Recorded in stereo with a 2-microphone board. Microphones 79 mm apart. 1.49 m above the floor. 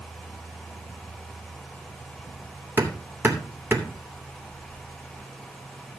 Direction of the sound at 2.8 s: 25° right (ahead or behind).